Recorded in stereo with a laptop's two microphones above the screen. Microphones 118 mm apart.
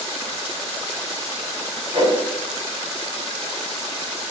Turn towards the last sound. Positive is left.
turn(degrees=-50)  # may be behind; listen again after turning